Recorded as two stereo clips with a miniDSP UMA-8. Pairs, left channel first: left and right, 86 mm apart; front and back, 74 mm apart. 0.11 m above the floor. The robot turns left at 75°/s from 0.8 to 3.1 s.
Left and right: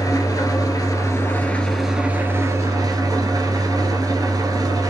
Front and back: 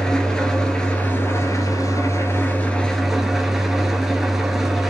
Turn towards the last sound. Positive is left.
turn(degrees=-95)